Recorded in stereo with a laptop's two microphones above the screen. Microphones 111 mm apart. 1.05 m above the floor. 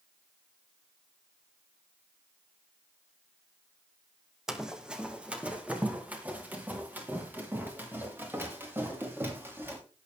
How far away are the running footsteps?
About 2.5 m.